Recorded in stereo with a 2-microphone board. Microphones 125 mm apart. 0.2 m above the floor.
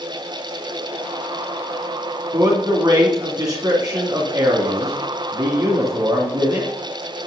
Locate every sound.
2.3 s a man speaking: 35° right (ahead or behind), 2 m